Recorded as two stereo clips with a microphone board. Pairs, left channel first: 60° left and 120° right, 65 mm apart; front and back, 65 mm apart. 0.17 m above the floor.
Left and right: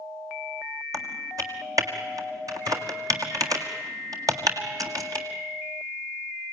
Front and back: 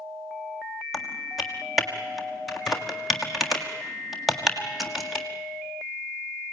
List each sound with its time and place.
0.9 s typing on a keyboard: 90° right, 1.7 m